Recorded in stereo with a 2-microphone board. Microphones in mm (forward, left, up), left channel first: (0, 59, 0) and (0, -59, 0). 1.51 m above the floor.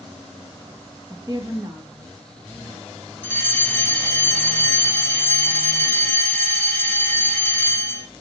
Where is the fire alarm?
15° left (ahead or behind), 6 m.